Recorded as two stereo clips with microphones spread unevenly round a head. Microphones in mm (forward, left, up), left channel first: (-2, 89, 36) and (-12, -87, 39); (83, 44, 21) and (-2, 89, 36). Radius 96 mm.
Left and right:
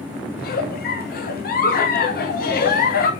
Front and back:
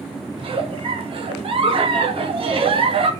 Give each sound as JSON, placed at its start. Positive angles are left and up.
{"t": 0.4, "sound": "a giggle", "azimuth_deg": 125, "distance_m": 2.0}